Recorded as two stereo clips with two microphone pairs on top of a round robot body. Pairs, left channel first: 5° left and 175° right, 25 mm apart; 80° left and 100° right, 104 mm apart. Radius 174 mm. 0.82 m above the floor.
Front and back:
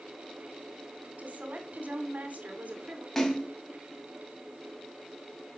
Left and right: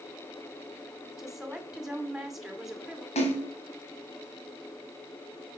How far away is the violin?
I don't hear a violin.